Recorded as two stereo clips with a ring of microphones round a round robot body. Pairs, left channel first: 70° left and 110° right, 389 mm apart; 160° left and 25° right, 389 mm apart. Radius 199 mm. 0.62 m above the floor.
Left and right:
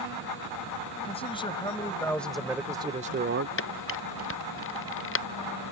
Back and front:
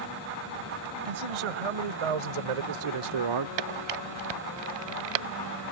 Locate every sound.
1.1 s a man speaking: 10° right; by 3.5 s 60° right
3.6 s a camera shutter: 5° left